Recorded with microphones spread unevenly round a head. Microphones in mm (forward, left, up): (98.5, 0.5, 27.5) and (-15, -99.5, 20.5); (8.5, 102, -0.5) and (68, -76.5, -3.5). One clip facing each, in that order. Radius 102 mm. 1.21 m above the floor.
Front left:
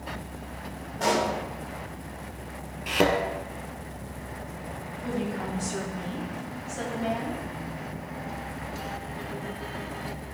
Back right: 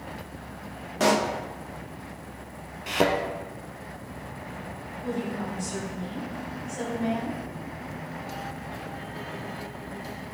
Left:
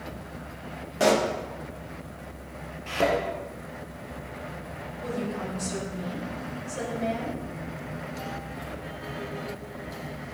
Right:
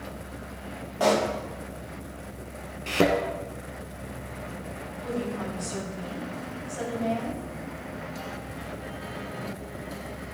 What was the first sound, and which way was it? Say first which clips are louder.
A pop: back right 2 dB, left 1 dB; straight behind.